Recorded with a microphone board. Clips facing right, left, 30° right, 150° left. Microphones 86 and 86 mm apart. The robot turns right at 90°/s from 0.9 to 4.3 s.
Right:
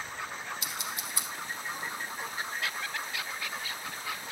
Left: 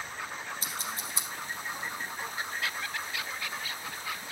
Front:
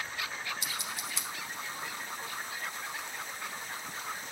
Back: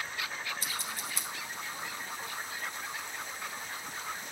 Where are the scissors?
125° left, 1.3 m; by 1.3 s 155° left, 1.3 m.